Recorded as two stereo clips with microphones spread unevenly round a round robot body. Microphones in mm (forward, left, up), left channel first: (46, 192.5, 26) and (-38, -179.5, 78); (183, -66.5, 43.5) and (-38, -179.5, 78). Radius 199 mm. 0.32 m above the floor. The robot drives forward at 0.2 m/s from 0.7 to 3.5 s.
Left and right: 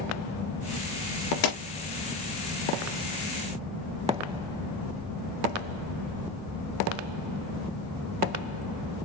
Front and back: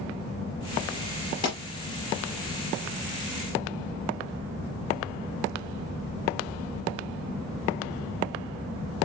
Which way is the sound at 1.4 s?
100° left.